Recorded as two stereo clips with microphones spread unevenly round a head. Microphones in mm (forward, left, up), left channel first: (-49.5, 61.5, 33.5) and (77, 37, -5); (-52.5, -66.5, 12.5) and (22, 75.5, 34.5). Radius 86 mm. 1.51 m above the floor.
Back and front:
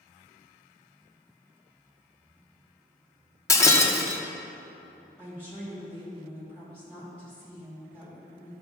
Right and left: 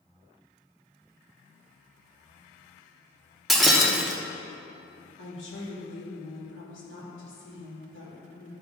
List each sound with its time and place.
3.5 s breaking glass: 140° left, 0.7 m
5.2 s a woman speaking: 110° right, 2.5 m